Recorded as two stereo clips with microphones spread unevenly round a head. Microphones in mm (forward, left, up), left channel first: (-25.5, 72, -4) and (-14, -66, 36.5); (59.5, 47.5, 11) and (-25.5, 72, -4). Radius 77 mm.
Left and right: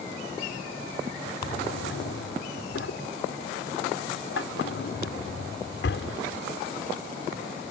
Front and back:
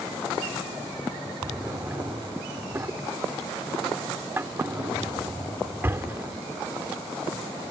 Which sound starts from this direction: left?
A drawer, at 1.4 s.